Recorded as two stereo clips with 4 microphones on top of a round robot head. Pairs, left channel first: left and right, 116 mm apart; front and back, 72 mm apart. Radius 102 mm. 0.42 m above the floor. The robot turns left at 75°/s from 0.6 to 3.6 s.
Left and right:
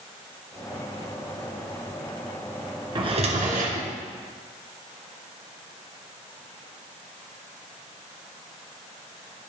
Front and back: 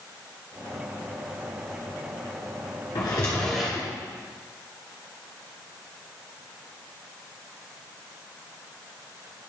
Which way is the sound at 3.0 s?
40° right.